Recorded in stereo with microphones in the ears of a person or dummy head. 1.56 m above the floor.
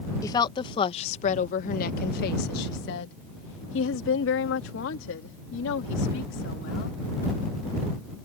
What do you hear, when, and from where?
0.2 s a woman speaking: 20° left (ahead or behind); by 7.0 s 80° left